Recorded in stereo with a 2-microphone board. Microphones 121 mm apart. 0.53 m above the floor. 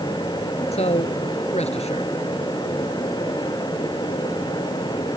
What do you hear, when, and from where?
0.7 s a man speaking: 60° left (ahead or behind)